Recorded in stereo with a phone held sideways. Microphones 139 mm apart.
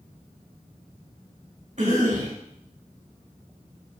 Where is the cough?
50° right (ahead or behind), 1.8 m.